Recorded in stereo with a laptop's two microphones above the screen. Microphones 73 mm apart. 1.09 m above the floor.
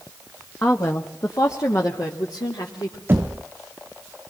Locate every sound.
0.6 s a woman speaking: 35° left (ahead or behind), 1.9 m; by 3.0 s 70° left (ahead or behind), 3.5 m
3.1 s knocking: 30° right (ahead or behind), 0.6 m